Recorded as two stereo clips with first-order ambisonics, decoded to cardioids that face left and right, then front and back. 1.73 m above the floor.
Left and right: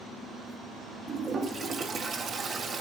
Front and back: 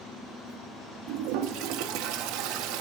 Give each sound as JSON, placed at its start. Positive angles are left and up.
{"t": 1.1, "sound": "a toilet flushing", "azimuth_deg": -160, "distance_m": 0.6}